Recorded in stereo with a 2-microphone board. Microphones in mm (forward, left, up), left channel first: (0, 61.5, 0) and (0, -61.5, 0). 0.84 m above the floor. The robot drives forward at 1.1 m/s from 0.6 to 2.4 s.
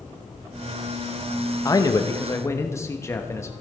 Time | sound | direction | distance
1.6 | a man speaking | 30° left (ahead or behind) | 0.9 m